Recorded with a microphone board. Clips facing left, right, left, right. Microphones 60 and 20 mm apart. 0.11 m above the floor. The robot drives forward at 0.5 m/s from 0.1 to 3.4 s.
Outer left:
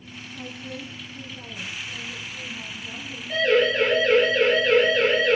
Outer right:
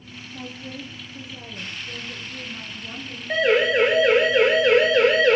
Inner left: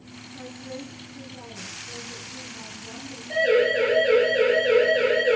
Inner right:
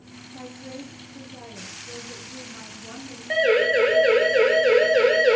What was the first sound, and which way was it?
A woman speaking, 70° right (ahead or behind).